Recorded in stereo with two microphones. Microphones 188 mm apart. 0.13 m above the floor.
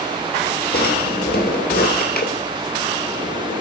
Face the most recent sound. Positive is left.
turn(degrees=55)  # may be behind; listen again after turning